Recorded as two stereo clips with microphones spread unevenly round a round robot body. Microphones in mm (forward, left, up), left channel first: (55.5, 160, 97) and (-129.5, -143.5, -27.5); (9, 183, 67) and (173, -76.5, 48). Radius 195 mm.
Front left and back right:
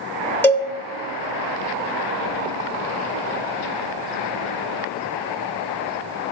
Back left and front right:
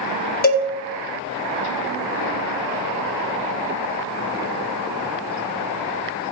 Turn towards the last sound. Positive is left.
turn(degrees=170)